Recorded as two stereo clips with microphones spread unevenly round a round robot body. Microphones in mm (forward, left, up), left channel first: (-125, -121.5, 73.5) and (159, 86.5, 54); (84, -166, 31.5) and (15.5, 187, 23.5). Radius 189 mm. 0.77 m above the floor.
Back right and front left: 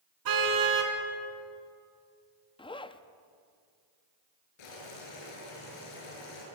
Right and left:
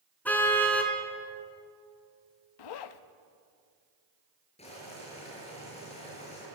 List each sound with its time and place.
0.2 s a car horn: 5° left, 3.5 m
2.6 s a zipper: 65° right, 0.9 m
4.6 s boiling: 155° right, 8 m